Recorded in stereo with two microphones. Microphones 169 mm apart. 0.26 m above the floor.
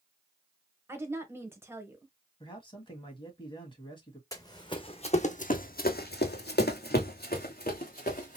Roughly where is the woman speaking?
Centre.